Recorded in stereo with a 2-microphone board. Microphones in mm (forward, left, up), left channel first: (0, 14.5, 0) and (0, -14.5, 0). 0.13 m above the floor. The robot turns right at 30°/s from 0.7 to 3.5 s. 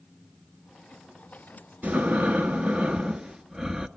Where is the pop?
I don't hear a pop.